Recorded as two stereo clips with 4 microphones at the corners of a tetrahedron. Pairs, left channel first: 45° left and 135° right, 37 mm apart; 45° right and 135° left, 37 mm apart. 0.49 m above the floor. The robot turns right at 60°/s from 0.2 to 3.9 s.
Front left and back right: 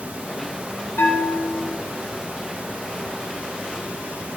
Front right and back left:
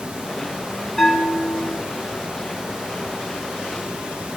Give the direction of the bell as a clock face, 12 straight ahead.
11 o'clock.